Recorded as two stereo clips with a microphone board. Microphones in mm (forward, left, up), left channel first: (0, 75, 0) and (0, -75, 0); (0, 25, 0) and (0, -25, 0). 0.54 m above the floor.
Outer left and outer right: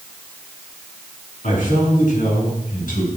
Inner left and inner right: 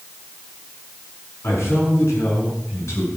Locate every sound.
1.4 s a man speaking: 60° left (ahead or behind), 6.5 m; by 3.1 s 65° left (ahead or behind), 6 m